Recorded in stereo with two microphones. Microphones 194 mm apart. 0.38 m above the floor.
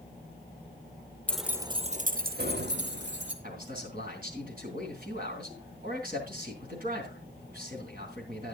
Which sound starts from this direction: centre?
Keys jangling, at 1.3 s.